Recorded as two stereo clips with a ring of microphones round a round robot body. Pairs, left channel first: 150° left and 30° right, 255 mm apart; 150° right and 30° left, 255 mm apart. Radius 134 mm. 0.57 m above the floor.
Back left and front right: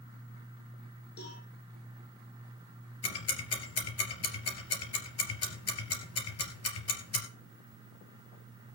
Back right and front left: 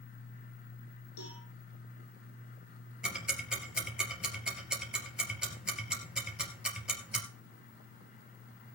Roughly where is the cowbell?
Behind.